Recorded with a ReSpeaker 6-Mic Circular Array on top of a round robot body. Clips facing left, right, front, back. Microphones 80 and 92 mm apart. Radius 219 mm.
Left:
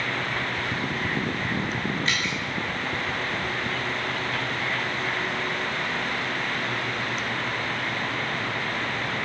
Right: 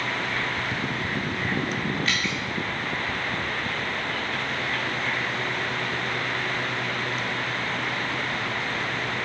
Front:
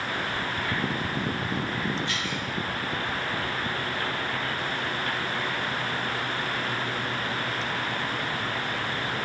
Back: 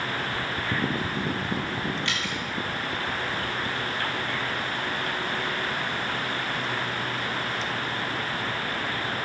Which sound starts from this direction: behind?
Dripping, at 2.0 s.